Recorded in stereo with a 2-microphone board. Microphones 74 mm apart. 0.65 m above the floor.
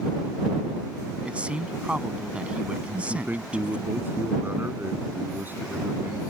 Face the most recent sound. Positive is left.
turn(degrees=-25)  # may be behind; listen again after turning